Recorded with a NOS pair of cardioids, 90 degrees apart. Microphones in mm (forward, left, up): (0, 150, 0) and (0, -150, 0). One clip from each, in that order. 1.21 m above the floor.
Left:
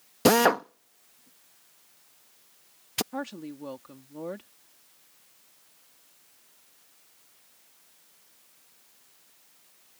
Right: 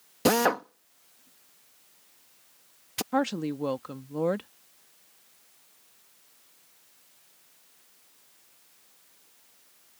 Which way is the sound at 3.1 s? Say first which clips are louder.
Right 9 dB; 55° right.